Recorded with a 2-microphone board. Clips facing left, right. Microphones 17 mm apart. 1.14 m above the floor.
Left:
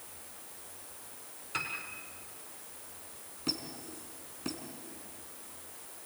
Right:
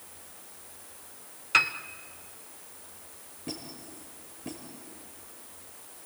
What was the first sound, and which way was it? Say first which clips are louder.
A piano: right 13 dB; 50° right (ahead or behind).